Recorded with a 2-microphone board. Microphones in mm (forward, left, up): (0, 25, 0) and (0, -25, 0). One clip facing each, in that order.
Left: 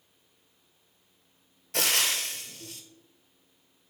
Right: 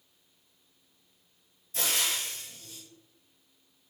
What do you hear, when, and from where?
1.7 s frying: 60° left (ahead or behind), 0.6 m